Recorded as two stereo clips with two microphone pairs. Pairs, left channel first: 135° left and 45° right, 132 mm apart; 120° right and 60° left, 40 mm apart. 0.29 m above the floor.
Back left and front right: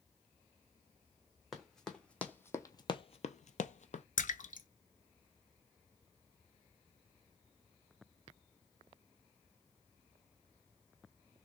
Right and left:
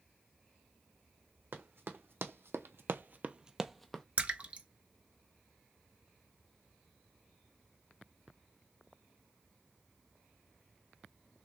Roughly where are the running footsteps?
Ahead left.